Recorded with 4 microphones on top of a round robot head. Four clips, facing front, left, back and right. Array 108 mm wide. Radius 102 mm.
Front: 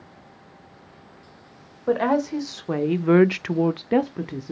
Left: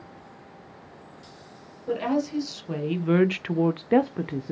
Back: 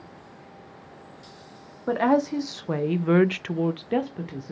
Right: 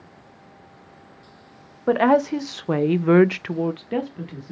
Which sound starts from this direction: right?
A woman speaking, at 1.9 s.